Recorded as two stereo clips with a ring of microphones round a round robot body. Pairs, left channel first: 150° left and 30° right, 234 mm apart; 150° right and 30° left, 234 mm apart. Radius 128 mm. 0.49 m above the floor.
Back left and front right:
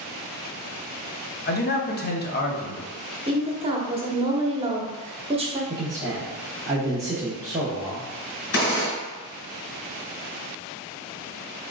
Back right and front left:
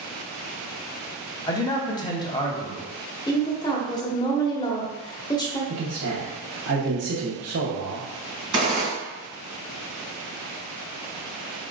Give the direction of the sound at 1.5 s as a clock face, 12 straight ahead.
7 o'clock.